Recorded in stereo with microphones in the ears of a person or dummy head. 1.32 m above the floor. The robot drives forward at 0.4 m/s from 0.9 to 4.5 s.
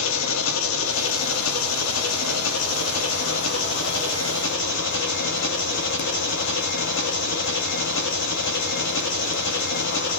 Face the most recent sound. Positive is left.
turn(degrees=60)  # may be behind; listen again after turning